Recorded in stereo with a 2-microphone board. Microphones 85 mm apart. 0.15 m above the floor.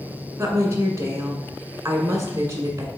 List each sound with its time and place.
0.4 s a woman speaking: 35° right (ahead or behind), 1.5 m